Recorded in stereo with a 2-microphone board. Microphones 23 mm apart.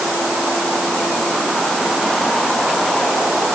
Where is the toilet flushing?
I don't hear a toilet flushing.